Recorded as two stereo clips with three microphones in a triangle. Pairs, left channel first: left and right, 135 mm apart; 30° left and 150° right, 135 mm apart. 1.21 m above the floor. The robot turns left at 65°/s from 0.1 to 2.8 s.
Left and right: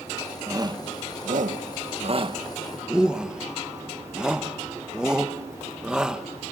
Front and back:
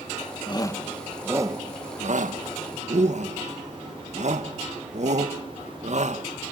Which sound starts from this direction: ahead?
A shout, at 0.5 s.